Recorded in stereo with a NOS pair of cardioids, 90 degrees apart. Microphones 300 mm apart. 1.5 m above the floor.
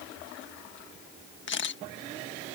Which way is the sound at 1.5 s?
40° left.